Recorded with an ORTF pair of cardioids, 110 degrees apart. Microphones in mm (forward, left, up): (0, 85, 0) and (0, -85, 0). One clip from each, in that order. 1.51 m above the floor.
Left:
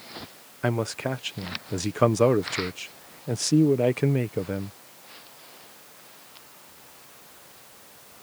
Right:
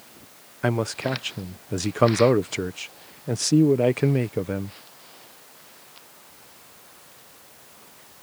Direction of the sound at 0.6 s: 10° right.